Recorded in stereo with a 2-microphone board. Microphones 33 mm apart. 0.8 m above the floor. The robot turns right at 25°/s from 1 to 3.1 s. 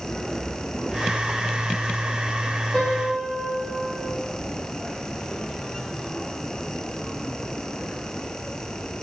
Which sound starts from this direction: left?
A piano, at 2.7 s.